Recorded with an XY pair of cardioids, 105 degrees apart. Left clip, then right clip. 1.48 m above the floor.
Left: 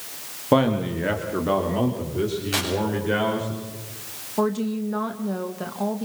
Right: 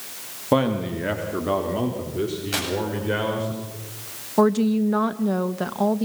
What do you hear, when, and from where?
0.5 s a man speaking: 10° left, 2.5 m; by 3.5 s straight ahead, 5.5 m
2.5 s tearing paper: 5° right, 8.5 m
4.4 s a woman speaking: 35° right, 1.6 m